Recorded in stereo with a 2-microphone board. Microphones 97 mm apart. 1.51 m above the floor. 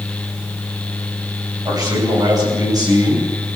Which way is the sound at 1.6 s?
40° right (ahead or behind).